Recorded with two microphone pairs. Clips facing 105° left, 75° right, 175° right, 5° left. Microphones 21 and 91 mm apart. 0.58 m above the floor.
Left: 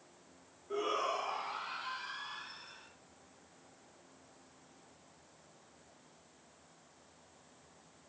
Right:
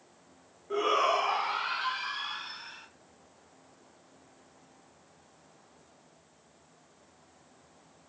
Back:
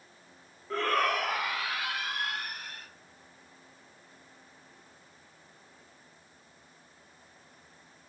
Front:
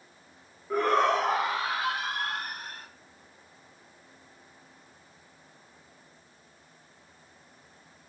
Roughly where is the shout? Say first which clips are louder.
Right 9 dB, front 5 dB; ahead right.